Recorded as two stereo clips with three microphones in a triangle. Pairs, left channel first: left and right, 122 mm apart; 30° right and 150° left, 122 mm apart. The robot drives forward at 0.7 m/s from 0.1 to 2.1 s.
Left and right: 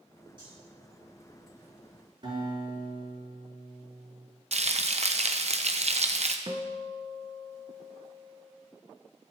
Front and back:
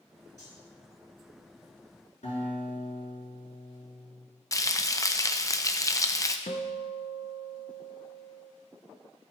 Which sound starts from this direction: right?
Frying, at 4.5 s.